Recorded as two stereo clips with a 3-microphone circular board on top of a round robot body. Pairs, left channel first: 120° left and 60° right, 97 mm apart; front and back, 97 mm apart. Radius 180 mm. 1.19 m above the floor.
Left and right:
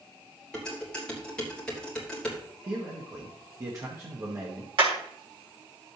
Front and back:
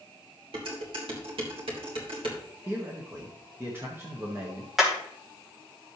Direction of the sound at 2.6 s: 115° right.